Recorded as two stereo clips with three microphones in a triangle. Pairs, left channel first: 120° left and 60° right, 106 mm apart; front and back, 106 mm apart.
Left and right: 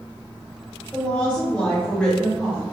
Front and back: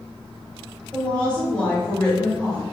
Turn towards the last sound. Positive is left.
turn(degrees=60)